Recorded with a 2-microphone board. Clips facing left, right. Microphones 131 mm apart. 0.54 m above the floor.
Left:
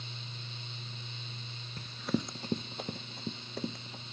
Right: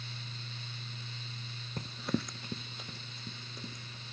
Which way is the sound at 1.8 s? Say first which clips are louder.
Left 1 dB; 45° right (ahead or behind).